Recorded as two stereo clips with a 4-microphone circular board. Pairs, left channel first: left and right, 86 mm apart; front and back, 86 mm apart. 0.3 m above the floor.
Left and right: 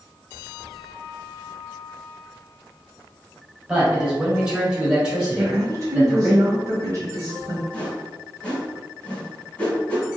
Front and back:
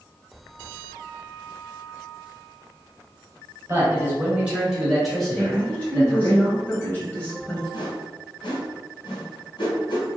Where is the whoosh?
15° left, 1.4 m.